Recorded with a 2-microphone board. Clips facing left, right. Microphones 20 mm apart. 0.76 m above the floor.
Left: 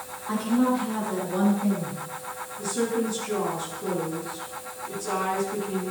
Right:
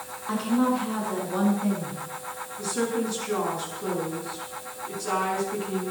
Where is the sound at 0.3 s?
45° right (ahead or behind), 7 m.